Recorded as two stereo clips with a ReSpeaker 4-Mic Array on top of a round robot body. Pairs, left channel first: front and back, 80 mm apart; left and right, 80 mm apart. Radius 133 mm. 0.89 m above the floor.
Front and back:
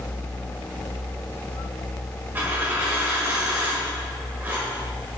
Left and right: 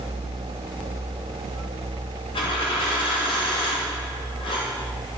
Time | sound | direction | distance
2.4 | a dropped coin | 110° left | 1.3 m